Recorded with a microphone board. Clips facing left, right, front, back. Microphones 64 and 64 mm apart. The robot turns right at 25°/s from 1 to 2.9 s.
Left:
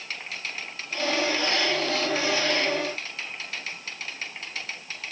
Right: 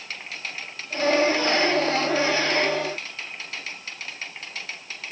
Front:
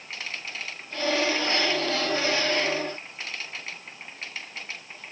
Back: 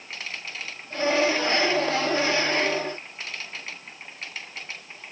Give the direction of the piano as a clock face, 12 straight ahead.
I don't hear a piano.